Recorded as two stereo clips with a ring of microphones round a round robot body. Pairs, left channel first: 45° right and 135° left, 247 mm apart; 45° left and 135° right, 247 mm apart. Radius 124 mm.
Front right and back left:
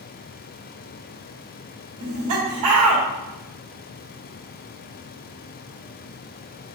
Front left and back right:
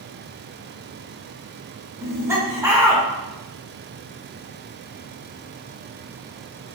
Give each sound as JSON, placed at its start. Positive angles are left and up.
{"t": 2.0, "sound": "laughter", "azimuth_deg": 145, "distance_m": 1.2}